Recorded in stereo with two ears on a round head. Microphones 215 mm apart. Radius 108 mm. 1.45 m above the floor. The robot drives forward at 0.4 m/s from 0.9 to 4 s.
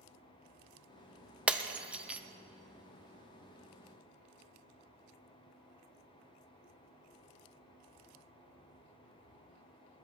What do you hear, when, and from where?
1.5 s breaking glass: 5° right (ahead or behind), 0.7 m